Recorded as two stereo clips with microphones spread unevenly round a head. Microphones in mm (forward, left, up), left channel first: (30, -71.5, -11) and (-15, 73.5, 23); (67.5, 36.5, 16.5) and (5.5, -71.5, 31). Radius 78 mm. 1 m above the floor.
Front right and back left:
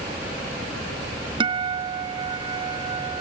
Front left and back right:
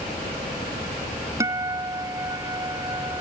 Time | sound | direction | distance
1.4 | a guitar | 170° left | ?